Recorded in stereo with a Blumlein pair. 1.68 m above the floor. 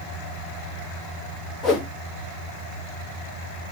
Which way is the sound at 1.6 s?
25° left.